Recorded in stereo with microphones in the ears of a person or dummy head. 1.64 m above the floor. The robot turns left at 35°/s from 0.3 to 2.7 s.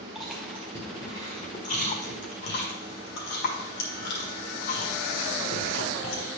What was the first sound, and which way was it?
Chewing, 5° right (ahead or behind).